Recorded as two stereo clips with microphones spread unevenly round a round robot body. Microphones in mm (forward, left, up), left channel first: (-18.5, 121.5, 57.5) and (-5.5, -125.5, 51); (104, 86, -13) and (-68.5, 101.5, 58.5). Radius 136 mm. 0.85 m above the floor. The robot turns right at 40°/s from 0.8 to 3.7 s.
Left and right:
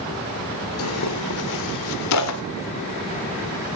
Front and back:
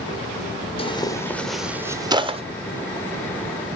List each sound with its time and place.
0.8 s tearing paper: 55° left, 1.5 m; by 2.4 s 120° left, 1.5 m